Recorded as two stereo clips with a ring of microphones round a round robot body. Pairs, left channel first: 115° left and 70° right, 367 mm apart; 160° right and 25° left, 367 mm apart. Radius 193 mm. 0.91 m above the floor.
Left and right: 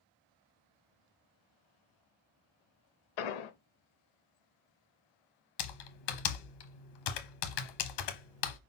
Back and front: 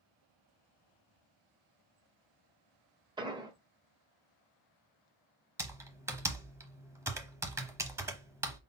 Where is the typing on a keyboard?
105° left, 0.9 m.